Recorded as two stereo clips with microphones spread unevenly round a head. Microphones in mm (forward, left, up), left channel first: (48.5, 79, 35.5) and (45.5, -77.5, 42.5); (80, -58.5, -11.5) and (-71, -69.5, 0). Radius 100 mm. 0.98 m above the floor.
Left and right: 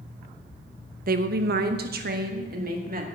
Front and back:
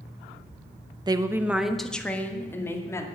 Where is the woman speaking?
115° right, 0.8 m; by 3.1 s 65° right, 2 m.